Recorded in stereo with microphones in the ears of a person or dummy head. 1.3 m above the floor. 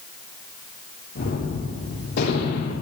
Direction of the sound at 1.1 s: 55° left (ahead or behind).